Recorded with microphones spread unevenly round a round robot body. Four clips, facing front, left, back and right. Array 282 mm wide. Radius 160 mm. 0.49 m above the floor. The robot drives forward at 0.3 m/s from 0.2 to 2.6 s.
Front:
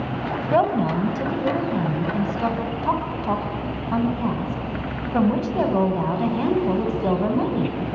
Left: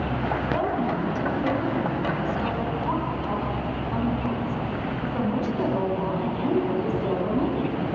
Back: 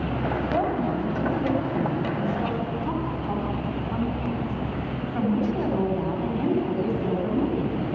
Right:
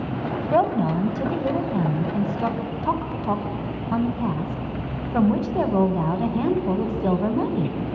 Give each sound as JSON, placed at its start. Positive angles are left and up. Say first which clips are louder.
{"t": 0.5, "sound": "a woman speaking", "louder": "right 8 dB, front 8 dB", "azimuth_deg": -55, "distance_m": 2.0}